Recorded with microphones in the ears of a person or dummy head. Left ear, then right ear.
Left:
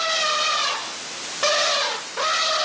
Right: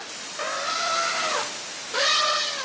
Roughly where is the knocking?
I don't hear knocking.